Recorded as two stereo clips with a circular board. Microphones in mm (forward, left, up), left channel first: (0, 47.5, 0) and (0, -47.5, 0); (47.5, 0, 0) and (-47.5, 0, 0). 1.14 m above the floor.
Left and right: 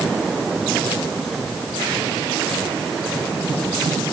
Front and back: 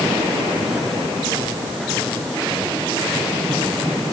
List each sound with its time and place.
Only background noise.